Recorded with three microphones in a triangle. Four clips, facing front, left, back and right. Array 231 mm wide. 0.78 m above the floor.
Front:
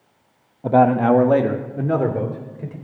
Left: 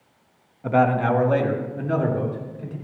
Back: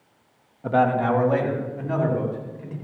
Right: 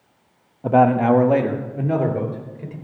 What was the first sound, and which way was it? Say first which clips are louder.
A man speaking: right 4 dB, front 5 dB; 45° right.